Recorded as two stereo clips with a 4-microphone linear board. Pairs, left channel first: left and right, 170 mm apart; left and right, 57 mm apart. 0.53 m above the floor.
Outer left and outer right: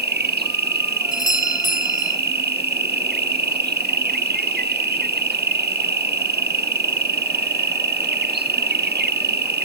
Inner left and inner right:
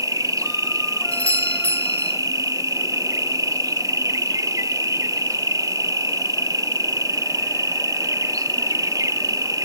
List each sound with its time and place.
0.0 s an insect: 75° right (ahead or behind), 0.8 m
1.1 s a doorbell: 25° left (ahead or behind), 3.5 m